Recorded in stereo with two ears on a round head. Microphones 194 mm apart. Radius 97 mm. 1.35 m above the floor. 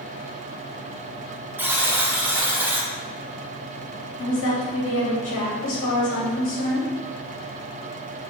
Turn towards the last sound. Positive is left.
turn(degrees=60)  # may be behind; listen again after turning